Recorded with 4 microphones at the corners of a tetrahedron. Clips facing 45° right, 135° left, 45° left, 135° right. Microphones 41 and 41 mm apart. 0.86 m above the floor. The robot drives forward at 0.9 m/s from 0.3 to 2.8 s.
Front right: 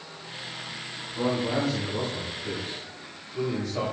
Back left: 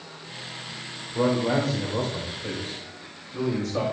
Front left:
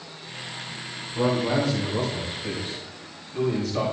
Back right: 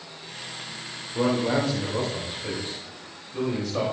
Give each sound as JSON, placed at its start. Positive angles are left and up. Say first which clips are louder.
{"t": 1.1, "sound": "a man speaking", "louder": "back left 4 dB, even", "azimuth_deg": 160, "distance_m": 3.0}